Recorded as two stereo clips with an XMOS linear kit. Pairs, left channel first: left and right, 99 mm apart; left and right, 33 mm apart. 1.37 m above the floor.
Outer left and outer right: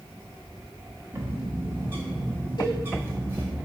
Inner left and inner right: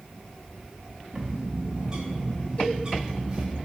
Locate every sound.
1.1 s a bird: 20° right (ahead or behind), 1.2 m
2.6 s a cowbell: 45° left (ahead or behind), 2 m